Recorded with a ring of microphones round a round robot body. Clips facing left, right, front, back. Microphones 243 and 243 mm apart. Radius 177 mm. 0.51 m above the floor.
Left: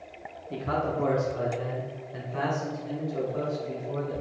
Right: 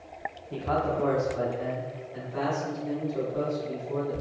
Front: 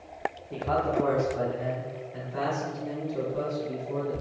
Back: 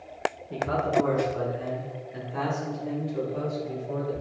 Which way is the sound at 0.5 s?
120° left.